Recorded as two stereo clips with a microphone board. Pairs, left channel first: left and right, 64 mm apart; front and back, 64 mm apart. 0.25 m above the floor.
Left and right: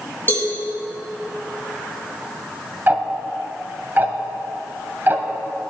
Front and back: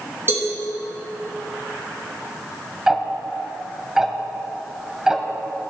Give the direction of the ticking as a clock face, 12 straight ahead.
4 o'clock.